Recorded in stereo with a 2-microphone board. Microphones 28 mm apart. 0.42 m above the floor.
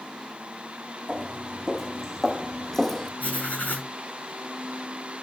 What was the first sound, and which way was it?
Footsteps, 5° left (ahead or behind).